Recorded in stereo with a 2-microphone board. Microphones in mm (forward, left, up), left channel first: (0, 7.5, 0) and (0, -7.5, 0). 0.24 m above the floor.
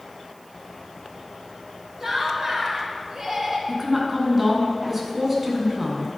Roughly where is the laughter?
Right.